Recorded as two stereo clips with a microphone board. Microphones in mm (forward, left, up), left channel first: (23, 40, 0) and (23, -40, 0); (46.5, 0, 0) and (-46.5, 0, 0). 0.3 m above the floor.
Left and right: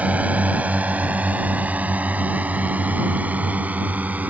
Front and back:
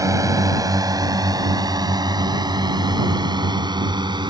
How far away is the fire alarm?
I don't hear a fire alarm.